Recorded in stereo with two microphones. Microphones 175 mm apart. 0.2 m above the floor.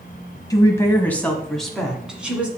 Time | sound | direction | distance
0.5 | a woman speaking | 20° left (ahead or behind) | 1.2 m